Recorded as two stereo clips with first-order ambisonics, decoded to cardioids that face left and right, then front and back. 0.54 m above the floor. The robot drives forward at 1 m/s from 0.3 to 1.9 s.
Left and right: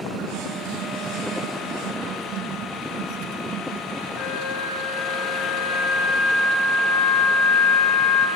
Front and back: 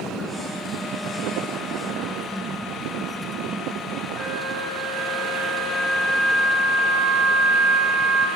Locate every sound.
4.2 s a flute: 115° left, 9.5 m